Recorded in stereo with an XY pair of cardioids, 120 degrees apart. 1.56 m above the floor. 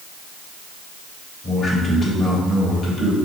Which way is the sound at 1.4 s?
35° left.